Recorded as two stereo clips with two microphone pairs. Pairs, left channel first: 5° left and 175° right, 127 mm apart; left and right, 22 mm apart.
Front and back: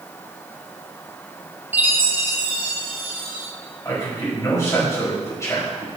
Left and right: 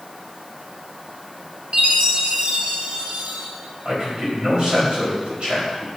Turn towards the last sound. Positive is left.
turn(degrees=-60)